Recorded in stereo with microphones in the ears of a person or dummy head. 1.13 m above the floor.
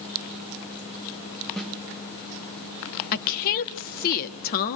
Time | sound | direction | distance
1.6 | a snare drum | 5° left (ahead or behind) | 2.5 m
3.1 | a woman speaking | 50° left (ahead or behind) | 1.5 m